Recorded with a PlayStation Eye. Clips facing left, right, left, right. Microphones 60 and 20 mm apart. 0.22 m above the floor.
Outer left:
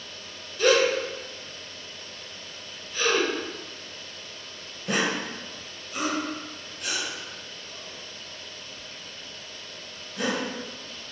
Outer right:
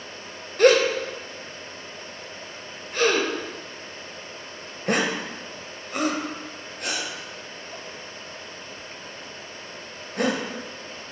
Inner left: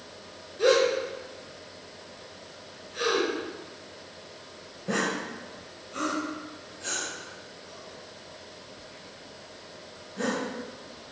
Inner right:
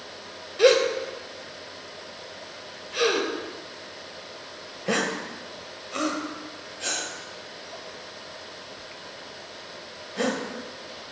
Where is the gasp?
60° right (ahead or behind), 1.1 m.